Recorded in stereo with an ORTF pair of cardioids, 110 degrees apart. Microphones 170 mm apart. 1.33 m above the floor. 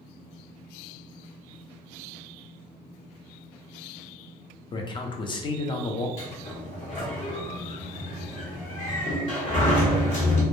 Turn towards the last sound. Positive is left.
turn(degrees=45)